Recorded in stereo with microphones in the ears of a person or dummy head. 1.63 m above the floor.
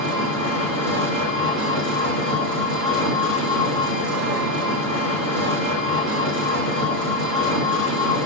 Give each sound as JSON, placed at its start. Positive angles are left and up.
{"t": 0.0, "sound": "an engine running", "side_deg": -55, "distance_m": 3.0}